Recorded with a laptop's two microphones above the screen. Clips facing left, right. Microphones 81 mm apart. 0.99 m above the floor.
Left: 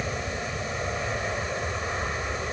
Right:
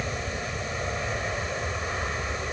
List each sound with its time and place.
0.0 s an aircraft: 5° left (ahead or behind)